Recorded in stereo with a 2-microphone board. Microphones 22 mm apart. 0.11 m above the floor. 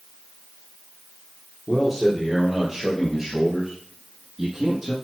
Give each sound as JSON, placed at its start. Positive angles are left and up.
{"t": 1.7, "sound": "a man speaking", "side_deg": 0, "distance_m": 3.5}